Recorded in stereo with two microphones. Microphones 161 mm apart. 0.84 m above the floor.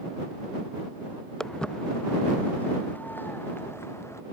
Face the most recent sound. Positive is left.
turn(degrees=15)  # may be behind; listen again after turning